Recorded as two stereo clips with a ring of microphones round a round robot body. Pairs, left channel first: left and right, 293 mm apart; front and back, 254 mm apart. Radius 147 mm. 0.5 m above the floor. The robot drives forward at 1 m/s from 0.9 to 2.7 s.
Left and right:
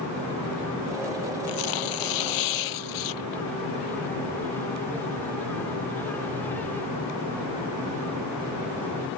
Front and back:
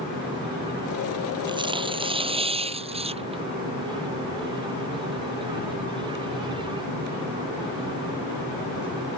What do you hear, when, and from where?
1.5 s tearing paper: 110° left